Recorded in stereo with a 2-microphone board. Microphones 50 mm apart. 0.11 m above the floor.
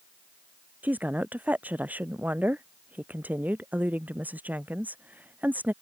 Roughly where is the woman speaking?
Right.